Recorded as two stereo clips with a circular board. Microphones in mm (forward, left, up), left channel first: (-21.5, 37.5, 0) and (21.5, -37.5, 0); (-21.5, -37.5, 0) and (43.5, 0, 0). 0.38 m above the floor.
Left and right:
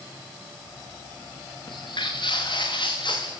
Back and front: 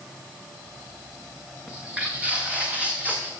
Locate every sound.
1.7 s footsteps: 105° left, 2 m; by 3.3 s 100° left, 3 m